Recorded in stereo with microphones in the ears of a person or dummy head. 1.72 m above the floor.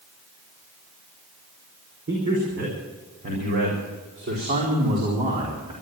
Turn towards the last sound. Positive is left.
turn(degrees=-25)  # may be behind; listen again after turning